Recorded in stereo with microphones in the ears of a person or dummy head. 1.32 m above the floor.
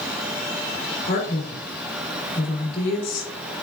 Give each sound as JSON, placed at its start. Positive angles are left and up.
{"t": 1.0, "sound": "a man speaking", "side_deg": 60, "distance_m": 2.5}